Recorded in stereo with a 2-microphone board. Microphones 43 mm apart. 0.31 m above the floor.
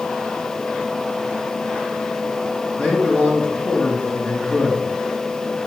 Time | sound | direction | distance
2.8 | a man speaking | 15° left (ahead or behind) | 4.5 m